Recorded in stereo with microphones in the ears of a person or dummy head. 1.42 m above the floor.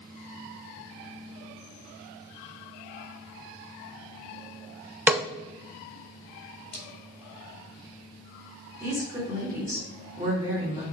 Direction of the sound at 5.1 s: 5° right (ahead or behind).